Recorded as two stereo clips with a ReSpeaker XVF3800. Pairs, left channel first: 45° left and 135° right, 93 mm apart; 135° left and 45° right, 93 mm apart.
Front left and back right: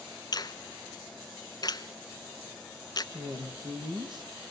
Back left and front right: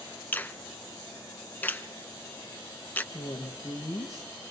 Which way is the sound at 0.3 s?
70° left.